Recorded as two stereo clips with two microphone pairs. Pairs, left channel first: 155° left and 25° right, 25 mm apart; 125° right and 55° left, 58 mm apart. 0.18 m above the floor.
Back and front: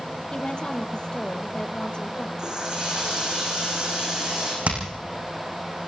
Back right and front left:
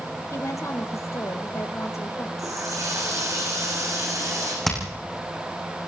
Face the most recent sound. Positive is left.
turn(degrees=-40)